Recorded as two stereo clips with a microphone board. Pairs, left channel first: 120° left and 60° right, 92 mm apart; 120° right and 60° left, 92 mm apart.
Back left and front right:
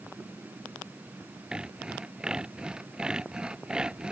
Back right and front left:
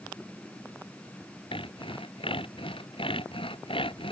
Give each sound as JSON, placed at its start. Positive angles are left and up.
{"t": 1.5, "sound": "sawing", "azimuth_deg": -140}